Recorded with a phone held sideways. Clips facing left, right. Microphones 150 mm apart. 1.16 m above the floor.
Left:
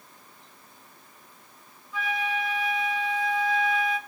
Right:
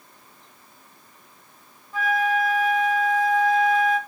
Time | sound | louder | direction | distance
1.9 | a flute | right 7 dB | 45° right (ahead or behind) | 1.3 m